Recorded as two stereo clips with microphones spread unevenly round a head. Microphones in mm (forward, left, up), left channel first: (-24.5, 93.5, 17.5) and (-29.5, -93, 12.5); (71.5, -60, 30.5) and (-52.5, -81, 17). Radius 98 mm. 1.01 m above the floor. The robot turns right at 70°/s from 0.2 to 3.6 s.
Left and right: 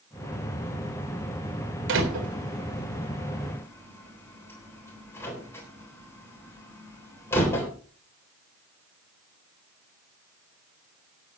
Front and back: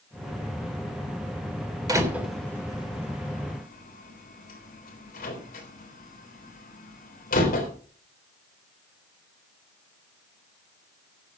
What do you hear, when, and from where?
1.9 s a door slam: 110° right, 3.5 m; by 7.7 s 10° left, 3.5 m